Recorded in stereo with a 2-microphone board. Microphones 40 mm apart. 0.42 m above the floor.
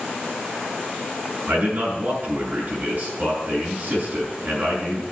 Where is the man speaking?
50° right (ahead or behind), 6 m.